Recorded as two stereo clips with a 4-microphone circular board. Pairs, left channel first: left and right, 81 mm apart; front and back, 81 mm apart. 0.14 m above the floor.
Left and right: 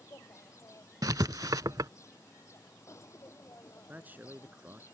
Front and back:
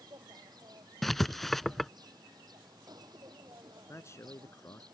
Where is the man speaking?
35° right.